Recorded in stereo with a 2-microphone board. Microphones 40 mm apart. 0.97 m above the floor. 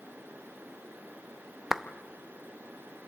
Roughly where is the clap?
Centre.